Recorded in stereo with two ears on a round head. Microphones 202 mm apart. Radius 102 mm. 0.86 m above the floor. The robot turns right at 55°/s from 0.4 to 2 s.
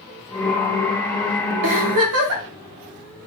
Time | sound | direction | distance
1.6 | a giggle | 55° right (ahead or behind) | 0.8 m